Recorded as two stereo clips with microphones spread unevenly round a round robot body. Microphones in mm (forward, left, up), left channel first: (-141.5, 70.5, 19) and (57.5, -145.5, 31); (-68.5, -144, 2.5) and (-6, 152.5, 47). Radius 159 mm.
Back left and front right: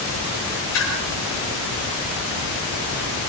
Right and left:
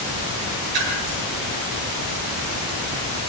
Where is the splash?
80° left, 9 m.